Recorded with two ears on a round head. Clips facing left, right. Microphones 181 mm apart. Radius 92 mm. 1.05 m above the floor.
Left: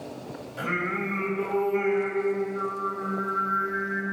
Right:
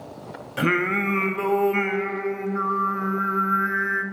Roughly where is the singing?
Right.